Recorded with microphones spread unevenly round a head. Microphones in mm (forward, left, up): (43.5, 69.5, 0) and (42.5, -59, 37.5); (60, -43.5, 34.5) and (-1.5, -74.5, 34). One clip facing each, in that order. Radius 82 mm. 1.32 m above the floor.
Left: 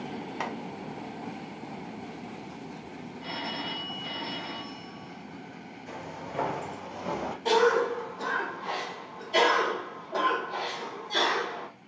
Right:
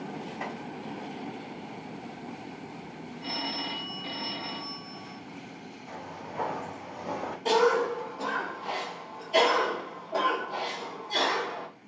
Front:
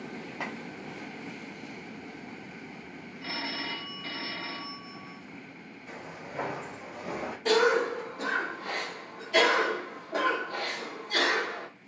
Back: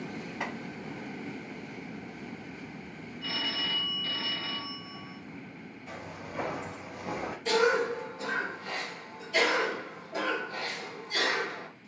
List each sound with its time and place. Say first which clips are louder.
0.4 s chopping: left 3 dB, back 1 dB; 90° left, 0.9 m
3.2 s a phone ringing: right 1 dB, even; 30° right, 1.0 m
5.9 s footsteps: left 2 dB, even; 105° left, 1.4 m; by 7.3 s 65° left, 1.9 m
7.5 s a cough: even, front 2 dB; 10° right, 1.1 m